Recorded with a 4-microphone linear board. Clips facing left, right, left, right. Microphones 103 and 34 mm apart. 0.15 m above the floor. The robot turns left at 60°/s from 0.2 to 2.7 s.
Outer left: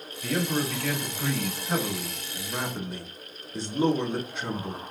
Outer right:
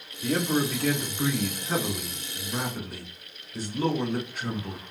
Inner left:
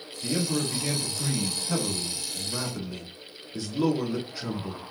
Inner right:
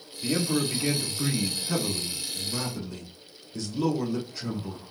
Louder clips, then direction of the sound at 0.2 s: Outer right 2 dB, inner right 2 dB; 90° right.